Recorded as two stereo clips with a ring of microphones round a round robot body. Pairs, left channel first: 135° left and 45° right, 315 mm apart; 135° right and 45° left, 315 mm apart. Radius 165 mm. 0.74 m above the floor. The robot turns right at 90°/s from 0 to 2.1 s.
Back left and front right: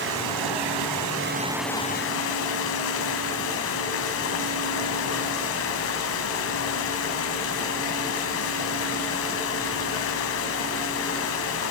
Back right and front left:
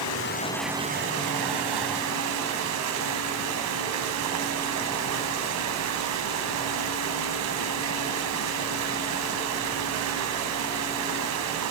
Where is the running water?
105° right, 1.9 m; by 11.7 s 85° left, 1.9 m.